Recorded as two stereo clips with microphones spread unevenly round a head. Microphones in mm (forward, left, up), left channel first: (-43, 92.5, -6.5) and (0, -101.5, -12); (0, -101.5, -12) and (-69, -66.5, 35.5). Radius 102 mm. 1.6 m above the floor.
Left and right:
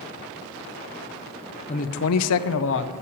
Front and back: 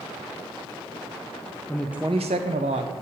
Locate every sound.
1.7 s a man speaking: 40° left, 0.7 m; by 2.9 s 135° left, 1.1 m